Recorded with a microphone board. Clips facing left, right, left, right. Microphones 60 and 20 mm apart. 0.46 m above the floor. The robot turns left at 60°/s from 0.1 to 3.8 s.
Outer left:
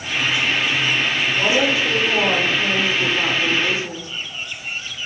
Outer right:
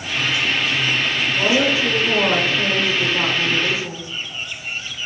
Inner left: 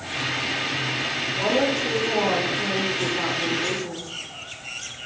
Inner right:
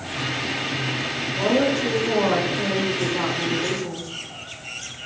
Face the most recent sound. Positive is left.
turn(degrees=-150)